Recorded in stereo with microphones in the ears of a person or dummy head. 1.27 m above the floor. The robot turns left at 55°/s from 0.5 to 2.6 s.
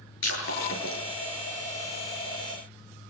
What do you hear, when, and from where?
0.2 s breaking glass: 85° left, 7.5 m; by 1.0 s 60° left (ahead or behind), 7.5 m